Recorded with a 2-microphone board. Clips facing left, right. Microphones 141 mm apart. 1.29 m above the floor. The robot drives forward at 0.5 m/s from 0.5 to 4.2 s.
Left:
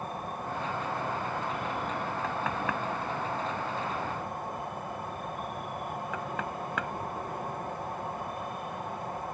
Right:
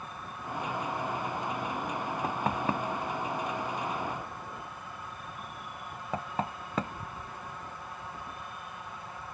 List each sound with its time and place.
0.0 s an insect: 50° left (ahead or behind)
2.2 s knocking: 30° right (ahead or behind); by 7.3 s 35° right (ahead or behind)